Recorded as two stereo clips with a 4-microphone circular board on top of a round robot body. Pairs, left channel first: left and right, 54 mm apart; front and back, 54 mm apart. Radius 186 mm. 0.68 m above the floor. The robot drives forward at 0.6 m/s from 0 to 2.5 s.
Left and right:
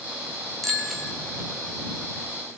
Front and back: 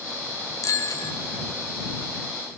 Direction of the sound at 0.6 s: Straight ahead.